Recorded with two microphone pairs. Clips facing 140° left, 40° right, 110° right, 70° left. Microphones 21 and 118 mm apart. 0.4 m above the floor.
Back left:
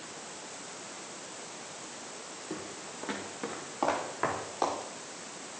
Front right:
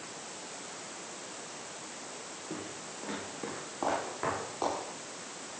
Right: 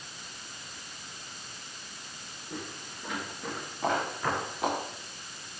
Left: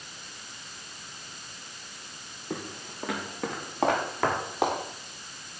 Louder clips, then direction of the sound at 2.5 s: Back left 1 dB, left 5 dB; 70° left.